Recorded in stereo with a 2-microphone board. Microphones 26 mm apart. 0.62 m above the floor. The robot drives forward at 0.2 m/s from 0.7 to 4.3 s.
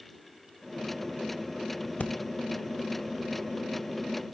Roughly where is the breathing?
Left.